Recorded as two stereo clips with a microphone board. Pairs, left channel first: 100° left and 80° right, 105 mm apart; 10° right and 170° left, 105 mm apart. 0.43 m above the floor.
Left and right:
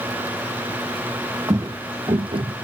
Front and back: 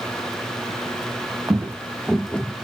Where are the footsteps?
130° right, 0.9 m; by 2.5 s 80° right, 0.7 m.